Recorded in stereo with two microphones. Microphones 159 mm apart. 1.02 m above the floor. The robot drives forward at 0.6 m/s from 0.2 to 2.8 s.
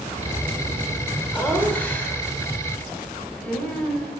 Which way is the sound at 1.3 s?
10° left (ahead or behind).